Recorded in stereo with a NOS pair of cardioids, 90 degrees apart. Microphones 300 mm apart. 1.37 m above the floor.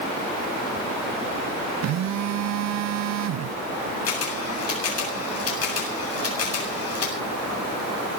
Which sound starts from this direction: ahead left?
A camera shutter, at 4.1 s.